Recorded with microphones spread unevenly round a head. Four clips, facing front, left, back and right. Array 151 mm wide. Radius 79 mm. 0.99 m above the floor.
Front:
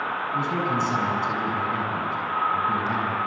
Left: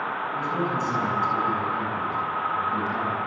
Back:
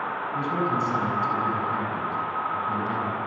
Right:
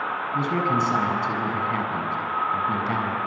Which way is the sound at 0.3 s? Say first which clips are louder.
Right 5 dB, even; 75° right.